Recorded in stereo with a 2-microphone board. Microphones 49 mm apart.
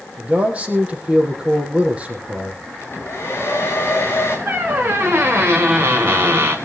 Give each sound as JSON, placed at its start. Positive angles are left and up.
{"t": 0.2, "sound": "a man speaking", "side_deg": -25, "distance_m": 4.5}
{"t": 2.8, "sound": "a hair dryer", "side_deg": 50, "distance_m": 5.0}
{"t": 4.5, "sound": "a squeak", "side_deg": -45, "distance_m": 2.0}